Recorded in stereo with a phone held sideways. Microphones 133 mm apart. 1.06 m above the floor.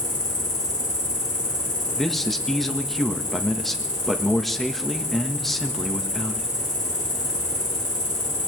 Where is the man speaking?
Centre (ahead or behind), 1.5 m.